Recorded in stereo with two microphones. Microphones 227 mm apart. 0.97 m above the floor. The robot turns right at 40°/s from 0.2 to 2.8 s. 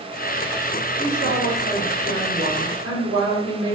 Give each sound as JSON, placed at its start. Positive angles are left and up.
{"t": 1.0, "sound": "a woman speaking", "azimuth_deg": -155, "distance_m": 2.0}